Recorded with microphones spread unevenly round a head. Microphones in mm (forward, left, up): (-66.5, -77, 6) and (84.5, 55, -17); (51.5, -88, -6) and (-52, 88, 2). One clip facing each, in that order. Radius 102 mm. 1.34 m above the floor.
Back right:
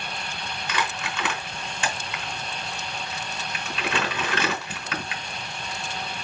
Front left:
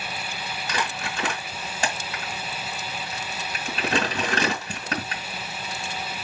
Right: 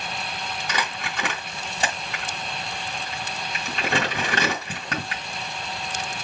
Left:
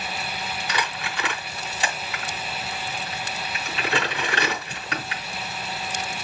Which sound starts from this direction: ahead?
Crumpling, at 0.7 s.